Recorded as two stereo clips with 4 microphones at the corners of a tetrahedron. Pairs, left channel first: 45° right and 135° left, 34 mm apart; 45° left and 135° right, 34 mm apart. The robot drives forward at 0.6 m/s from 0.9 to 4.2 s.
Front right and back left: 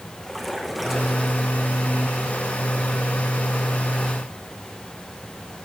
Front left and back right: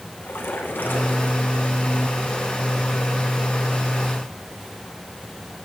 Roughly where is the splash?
Ahead left.